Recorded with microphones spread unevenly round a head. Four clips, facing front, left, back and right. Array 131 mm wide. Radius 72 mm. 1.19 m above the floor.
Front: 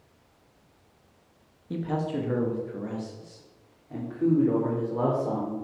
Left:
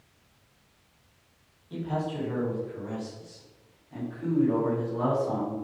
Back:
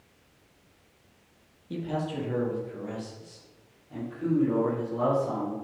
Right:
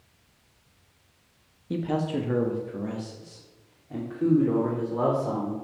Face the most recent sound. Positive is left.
turn(degrees=-40)